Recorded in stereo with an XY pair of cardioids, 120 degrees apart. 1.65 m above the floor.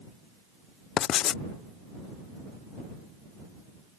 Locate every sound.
1.0 s writing: 65° left